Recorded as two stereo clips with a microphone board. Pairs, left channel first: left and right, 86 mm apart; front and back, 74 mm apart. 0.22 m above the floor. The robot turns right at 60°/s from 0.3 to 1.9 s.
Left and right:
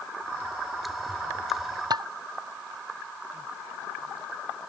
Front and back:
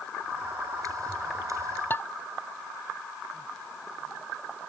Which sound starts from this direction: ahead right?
Dishes clattering, at 1.9 s.